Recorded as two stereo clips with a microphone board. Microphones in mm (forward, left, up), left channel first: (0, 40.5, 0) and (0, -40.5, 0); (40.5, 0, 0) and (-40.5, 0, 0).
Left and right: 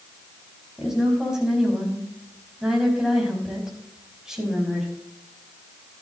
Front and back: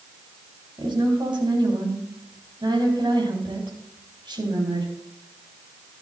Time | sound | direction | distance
0.8 | a woman speaking | 170° right | 4 m